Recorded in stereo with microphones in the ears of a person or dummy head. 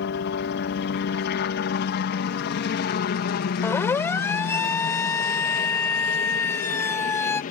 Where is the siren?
15° left (ahead or behind).